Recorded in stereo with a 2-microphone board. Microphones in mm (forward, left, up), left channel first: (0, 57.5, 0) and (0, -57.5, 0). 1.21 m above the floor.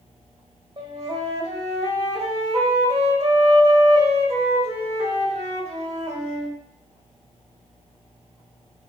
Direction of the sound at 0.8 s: 45° right (ahead or behind).